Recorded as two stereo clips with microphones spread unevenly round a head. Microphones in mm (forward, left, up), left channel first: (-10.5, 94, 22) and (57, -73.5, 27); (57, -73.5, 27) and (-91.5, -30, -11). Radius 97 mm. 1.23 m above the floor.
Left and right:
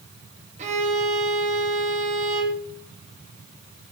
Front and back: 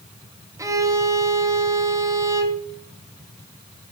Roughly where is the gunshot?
No gunshot in this recording.